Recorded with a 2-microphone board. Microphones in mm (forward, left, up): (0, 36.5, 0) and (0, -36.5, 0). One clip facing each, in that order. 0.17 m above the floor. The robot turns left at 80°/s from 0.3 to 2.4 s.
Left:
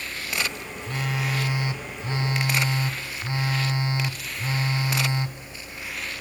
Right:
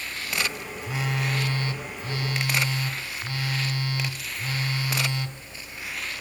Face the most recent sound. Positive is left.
turn(degrees=25)  # may be behind; listen again after turning